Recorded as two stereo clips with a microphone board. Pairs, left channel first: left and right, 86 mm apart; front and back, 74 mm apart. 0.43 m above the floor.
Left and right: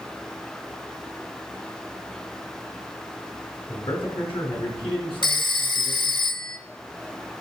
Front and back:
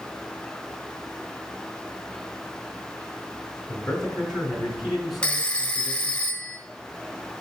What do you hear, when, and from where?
3.7 s a man speaking: 90° left, 4.5 m
5.2 s a phone ringing: 75° left, 0.9 m